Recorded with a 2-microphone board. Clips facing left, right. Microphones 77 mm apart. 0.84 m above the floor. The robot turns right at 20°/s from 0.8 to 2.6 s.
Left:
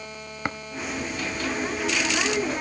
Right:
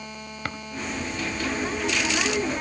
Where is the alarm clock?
No alarm clock in this recording.